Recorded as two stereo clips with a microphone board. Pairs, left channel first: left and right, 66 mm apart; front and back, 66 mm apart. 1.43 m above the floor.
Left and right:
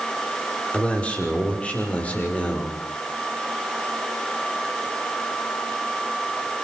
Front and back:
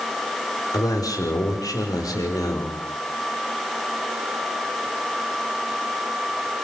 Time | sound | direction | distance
0.7 | a man speaking | 20° left | 5.5 m